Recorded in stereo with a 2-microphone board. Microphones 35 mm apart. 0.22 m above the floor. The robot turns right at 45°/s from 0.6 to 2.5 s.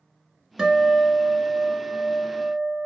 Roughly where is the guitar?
Behind.